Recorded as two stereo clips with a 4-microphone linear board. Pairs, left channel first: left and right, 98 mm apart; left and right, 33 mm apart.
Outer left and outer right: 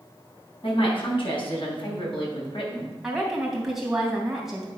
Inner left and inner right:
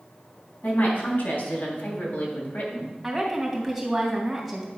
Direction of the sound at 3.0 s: 5° right (ahead or behind).